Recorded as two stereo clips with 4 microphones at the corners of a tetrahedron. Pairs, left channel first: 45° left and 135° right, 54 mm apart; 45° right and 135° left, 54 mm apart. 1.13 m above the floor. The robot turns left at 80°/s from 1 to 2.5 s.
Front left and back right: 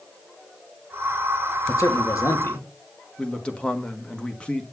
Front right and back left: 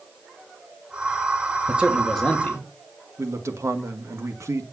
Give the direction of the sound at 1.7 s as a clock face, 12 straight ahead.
9 o'clock.